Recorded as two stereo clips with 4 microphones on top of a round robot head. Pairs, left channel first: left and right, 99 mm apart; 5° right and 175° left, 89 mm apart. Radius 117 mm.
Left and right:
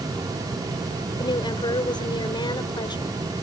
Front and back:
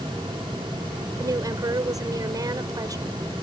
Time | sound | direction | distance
1.2 | a woman speaking | 130° left | ?